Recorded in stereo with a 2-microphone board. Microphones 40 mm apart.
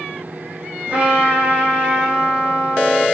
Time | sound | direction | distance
0.9 | a trumpet | 35° right (ahead or behind) | 1.4 m